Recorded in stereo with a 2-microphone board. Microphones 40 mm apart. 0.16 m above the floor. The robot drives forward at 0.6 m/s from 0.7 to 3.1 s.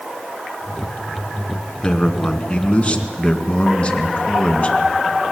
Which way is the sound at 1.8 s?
35° left (ahead or behind).